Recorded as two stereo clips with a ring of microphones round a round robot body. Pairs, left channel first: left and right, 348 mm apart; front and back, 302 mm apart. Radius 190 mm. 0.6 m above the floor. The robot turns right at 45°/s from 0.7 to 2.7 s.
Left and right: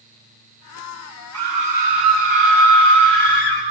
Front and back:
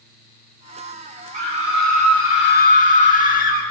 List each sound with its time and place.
1.3 s a scream: 140° right, 5.5 m; by 3.6 s 80° right, 5.5 m